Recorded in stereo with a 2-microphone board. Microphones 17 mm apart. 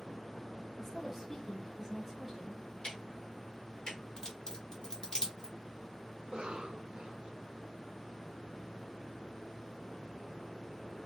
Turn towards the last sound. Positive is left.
turn(degrees=-60)  # may be behind; listen again after turning